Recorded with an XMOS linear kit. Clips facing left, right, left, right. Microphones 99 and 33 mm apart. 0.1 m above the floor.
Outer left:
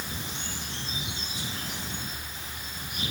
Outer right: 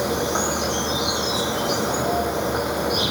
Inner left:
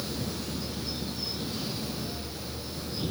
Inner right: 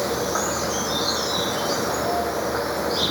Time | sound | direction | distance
0.0 | an insect | 80° right | ?